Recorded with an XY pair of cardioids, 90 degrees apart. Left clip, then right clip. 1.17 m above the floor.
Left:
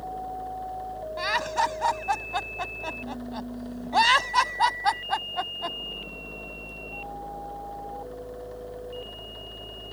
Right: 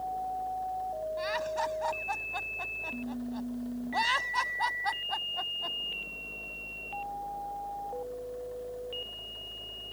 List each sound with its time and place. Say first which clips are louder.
0.0 s a fan: even; 60° left
1.2 s laughter: left 9 dB; 70° left